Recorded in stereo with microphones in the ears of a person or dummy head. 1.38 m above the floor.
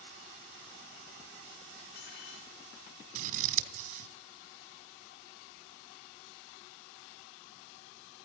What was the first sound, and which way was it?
Cutlery clinking, 65° left (ahead or behind).